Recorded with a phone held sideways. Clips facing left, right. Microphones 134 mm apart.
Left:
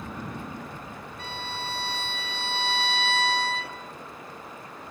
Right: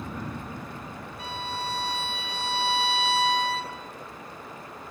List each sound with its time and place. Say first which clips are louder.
1.2 s a violin: right 3 dB; 40° right (ahead or behind), 3.5 m